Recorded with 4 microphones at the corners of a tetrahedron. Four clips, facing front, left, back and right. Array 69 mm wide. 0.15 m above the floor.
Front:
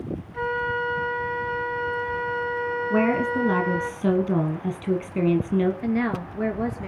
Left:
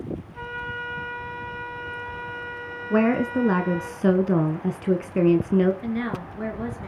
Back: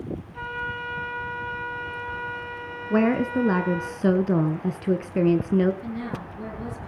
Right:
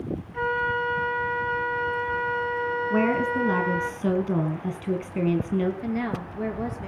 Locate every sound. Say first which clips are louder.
0.3 s a flute: right 10 dB, front 7 dB; 50° right, 2 m
2.9 s a woman speaking: left 4 dB, back 2 dB; 120° left, 1.2 m
5.8 s a woman speaking: even, front 7 dB; 10° right, 3 m